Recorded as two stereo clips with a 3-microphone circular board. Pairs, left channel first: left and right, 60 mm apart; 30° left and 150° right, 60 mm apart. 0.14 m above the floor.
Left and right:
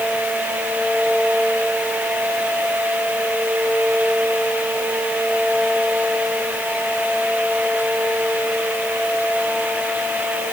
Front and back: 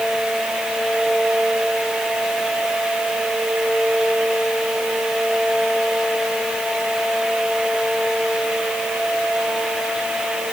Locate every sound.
Only background noise.